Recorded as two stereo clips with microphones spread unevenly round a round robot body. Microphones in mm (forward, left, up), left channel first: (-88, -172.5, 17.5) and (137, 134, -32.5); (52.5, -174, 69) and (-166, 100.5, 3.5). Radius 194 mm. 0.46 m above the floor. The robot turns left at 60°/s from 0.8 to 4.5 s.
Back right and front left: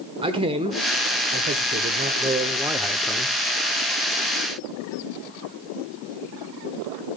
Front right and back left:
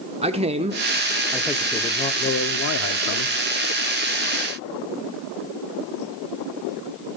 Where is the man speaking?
100° left, 0.9 m; by 3.4 s 50° right, 0.9 m.